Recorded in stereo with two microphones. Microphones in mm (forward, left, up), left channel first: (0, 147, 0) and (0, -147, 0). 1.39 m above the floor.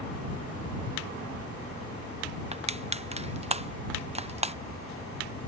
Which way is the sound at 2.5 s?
20° right (ahead or behind).